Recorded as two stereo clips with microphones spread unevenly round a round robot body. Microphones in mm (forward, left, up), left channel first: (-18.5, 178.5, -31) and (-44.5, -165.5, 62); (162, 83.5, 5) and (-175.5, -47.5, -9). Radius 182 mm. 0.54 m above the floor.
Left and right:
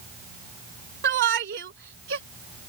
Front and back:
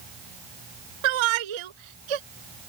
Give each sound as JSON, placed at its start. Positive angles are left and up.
{"t": 1.0, "sound": "a shout", "azimuth_deg": -155}